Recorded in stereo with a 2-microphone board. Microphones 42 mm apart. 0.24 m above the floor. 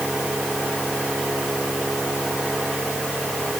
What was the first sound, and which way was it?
Only background noise.